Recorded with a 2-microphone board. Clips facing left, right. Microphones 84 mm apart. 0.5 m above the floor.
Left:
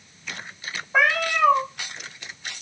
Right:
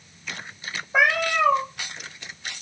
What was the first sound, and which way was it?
A cat meowing, 5° right (ahead or behind).